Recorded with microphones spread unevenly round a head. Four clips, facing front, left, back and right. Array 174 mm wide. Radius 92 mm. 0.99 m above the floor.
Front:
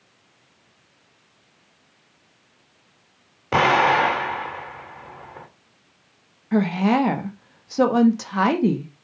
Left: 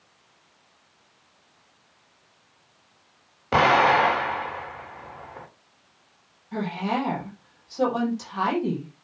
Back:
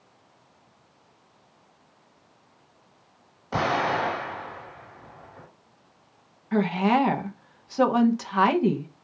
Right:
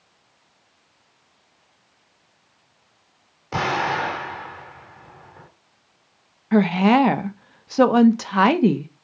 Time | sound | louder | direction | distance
3.5 | an explosion | left 5 dB, front 7 dB | 30° left | 3.5 m
6.5 | a woman speaking | right 11 dB, front 3 dB | 75° right | 1.2 m